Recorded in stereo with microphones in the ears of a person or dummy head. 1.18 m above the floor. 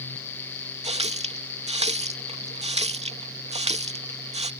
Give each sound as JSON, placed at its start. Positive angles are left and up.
{"t": 0.8, "sound": "a running tap", "side_deg": -25}